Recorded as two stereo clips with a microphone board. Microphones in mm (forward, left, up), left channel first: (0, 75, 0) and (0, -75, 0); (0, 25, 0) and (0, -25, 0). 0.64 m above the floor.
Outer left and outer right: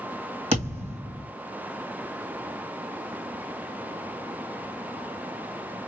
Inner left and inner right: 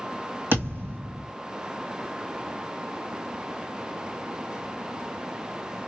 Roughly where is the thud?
Right.